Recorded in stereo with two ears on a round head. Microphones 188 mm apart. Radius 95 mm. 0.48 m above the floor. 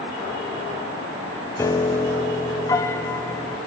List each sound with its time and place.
1.6 s a piano: 15° left (ahead or behind), 1.8 m